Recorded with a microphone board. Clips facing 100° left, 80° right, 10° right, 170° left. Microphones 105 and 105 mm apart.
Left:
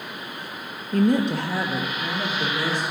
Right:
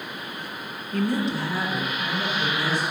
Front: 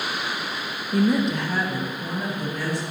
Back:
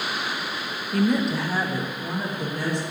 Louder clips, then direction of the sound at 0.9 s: Left 5 dB, front 1 dB; 50° left.